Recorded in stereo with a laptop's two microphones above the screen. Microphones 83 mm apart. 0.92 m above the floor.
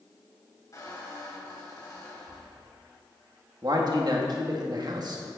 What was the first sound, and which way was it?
A squeak, 40° left (ahead or behind).